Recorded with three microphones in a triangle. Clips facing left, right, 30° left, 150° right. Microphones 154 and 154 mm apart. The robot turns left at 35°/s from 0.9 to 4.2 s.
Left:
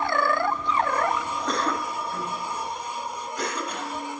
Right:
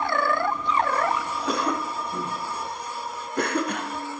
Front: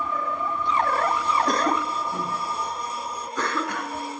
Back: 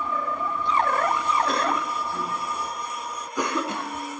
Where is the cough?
5° right, 2.5 m; by 4.2 s 105° right, 2.5 m.